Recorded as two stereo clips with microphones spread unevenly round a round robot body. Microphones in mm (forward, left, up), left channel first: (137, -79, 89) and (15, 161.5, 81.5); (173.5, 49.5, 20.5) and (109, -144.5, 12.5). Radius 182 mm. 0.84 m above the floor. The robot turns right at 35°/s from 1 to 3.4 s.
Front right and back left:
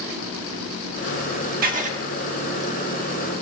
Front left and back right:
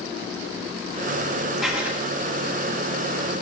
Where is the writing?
165° left, 1.6 m; by 2.0 s 175° left, 1.6 m.